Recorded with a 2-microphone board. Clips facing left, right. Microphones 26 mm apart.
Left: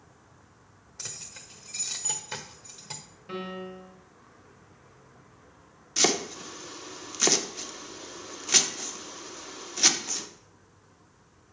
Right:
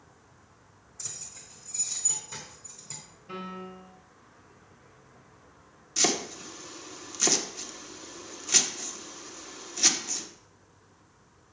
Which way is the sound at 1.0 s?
60° left (ahead or behind).